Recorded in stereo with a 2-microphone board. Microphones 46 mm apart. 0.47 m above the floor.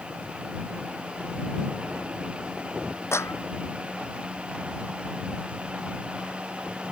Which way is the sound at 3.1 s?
75° left (ahead or behind).